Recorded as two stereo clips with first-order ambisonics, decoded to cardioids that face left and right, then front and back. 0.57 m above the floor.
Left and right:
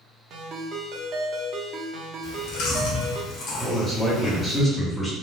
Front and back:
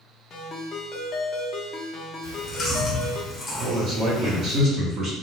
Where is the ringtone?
55° right, 0.5 m.